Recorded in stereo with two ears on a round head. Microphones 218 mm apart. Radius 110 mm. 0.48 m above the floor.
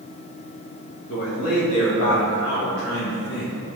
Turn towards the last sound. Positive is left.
turn(degrees=55)  # may be behind; listen again after turning